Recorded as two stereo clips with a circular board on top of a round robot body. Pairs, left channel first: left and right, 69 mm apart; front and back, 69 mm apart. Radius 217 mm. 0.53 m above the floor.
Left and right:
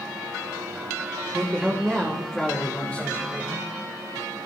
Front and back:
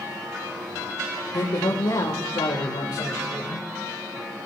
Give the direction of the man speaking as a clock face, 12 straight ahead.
1 o'clock.